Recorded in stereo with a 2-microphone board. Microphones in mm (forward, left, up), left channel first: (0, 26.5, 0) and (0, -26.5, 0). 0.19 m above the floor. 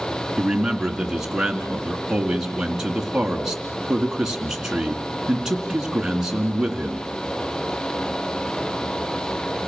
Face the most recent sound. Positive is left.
turn(degrees=-10)  # may be behind; listen again after turning